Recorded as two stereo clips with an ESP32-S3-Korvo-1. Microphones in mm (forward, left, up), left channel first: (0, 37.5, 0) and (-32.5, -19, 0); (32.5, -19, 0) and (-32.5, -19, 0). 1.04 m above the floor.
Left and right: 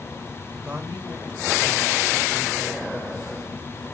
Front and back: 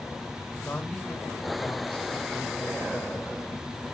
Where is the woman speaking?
75° right, 4.5 m.